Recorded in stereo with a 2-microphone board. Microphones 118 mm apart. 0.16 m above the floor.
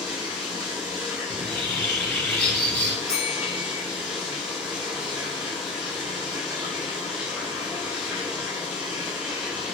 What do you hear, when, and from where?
0.0 s running water: 10° right (ahead or behind), 5 m
1.3 s a bird: 10° left (ahead or behind), 1.9 m
3.1 s a bell: 5° left (ahead or behind), 6.5 m